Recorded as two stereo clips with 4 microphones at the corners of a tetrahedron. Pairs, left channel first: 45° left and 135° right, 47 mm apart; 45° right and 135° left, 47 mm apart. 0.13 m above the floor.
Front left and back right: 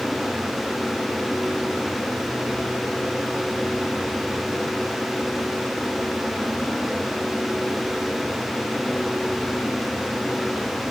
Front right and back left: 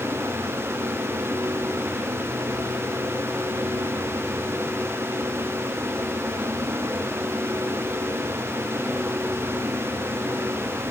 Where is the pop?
I don't hear a pop.